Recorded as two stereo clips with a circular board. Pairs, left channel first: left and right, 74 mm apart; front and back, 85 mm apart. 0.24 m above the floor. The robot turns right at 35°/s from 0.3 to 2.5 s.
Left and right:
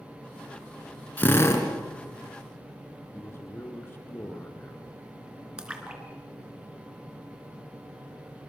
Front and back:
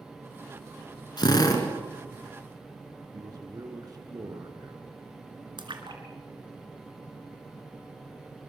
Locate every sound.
1.2 s a drill: 25° left, 3.5 m; by 1.6 s 45° left, 3.5 m
3.1 s a man speaking: 145° left, 3 m
5.6 s a splash: 165° right, 3 m